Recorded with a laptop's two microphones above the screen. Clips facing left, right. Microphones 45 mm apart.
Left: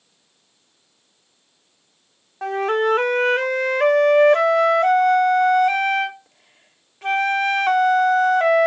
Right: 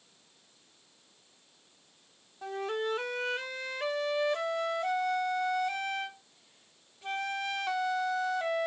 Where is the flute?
70° left (ahead or behind).